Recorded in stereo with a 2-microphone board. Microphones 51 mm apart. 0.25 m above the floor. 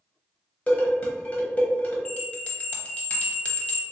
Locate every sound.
0.7 s dishes clattering: 30° left (ahead or behind), 0.8 m
2.0 s a bell: 25° left (ahead or behind), 0.8 m